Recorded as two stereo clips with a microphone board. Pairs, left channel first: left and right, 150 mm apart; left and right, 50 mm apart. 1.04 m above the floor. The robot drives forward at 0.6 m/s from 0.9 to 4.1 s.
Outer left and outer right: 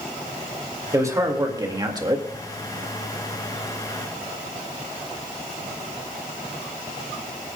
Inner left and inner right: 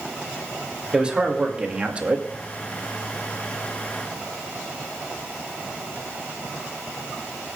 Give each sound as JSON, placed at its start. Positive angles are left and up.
{"t": 0.9, "sound": "a man speaking", "side_deg": -20, "distance_m": 2.5}